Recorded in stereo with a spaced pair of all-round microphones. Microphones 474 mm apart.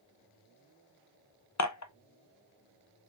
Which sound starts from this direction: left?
Dishes clattering, at 1.6 s.